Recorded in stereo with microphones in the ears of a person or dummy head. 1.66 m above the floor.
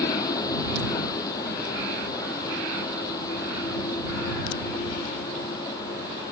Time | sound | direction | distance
0.0 | a vehicle | 20° left (ahead or behind) | ?